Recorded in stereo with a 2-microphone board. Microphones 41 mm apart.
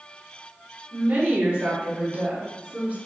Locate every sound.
0.9 s a woman speaking: 45° right (ahead or behind), 2.0 m